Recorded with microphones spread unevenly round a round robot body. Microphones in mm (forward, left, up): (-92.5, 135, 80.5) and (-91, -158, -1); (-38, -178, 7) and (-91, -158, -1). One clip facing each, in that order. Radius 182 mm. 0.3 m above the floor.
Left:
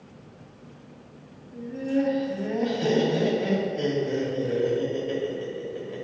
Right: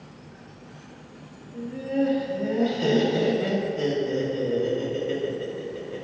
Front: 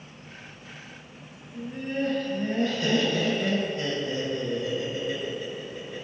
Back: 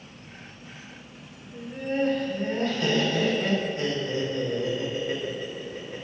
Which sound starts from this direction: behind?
Laughter, at 1.5 s.